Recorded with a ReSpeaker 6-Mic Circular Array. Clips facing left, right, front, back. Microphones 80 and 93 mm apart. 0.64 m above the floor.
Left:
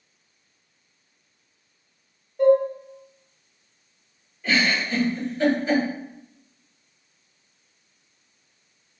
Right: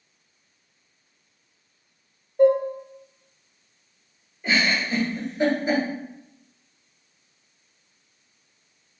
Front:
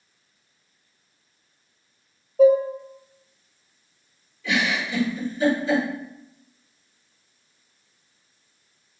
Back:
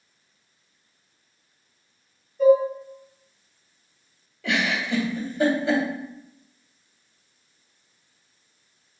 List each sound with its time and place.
2.4 s dishes clattering: 25° right, 0.7 m
4.4 s a giggle: 160° right, 1.6 m